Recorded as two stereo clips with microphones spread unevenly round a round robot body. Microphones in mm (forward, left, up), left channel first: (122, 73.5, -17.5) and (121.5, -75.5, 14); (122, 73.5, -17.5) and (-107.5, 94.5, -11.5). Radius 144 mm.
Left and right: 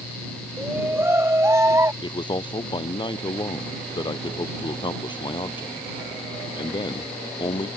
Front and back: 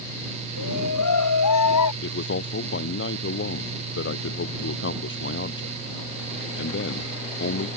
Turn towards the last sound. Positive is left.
turn(degrees=30)